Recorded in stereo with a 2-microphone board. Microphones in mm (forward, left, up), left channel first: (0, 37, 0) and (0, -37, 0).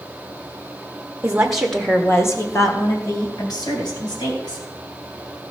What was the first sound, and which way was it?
A woman speaking, 20° right (ahead or behind).